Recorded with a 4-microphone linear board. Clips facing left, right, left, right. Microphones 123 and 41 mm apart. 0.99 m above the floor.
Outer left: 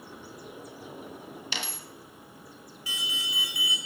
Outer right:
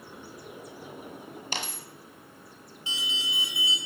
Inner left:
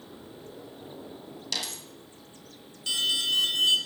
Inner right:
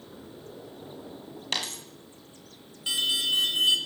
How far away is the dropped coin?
About 1.4 m.